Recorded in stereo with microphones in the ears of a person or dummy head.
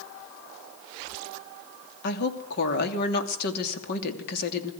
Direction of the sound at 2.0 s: 55° left (ahead or behind).